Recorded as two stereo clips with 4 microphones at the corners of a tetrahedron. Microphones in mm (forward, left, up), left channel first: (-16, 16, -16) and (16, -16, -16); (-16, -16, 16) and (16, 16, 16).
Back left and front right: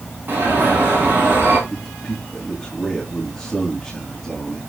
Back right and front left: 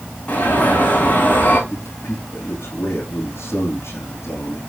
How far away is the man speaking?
About 5 m.